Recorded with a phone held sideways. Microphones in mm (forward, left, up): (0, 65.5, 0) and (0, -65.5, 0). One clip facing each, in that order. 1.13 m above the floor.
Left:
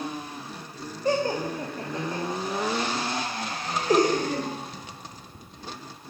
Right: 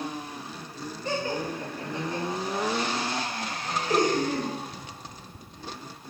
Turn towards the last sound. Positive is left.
turn(degrees=35)  # may be behind; listen again after turning